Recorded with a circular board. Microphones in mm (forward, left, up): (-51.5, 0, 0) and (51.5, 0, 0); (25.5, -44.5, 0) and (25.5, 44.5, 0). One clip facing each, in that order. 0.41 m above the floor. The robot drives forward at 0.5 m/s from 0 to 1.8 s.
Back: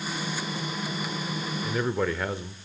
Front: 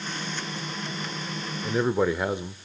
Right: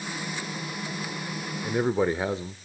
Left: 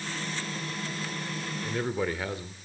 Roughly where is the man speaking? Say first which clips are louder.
Front 4 dB, right 6 dB; ahead right.